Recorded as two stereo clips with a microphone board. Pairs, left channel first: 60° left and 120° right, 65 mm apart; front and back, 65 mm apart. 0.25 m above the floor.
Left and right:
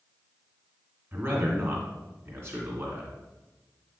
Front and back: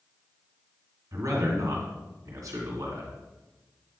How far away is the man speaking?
About 2 m.